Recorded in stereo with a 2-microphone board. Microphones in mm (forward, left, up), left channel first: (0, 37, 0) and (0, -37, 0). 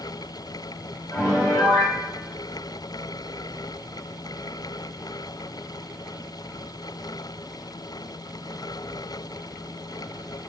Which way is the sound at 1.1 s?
35° left (ahead or behind).